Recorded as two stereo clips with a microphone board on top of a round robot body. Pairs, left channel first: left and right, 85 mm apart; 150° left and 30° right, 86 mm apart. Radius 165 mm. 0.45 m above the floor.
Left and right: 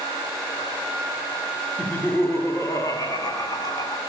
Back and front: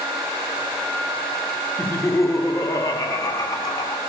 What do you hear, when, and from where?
1.8 s laughter: 145° left, 1.4 m; by 4.0 s 120° left, 2.5 m